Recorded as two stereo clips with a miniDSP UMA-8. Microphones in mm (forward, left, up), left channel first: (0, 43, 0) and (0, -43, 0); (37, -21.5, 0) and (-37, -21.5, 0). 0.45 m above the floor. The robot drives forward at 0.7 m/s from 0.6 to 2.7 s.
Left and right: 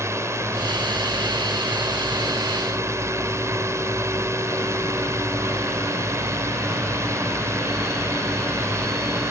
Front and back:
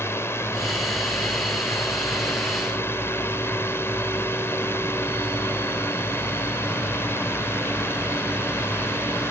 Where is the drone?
45° right.